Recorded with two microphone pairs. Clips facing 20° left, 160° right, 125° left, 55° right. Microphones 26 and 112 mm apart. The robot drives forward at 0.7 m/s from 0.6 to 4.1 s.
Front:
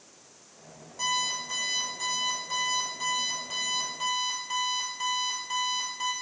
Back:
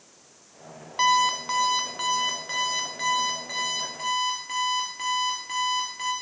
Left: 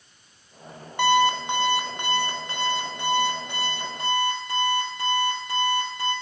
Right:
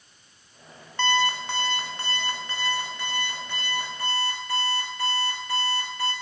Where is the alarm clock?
160° right, 1.2 m; by 6.1 s 175° right, 3.5 m.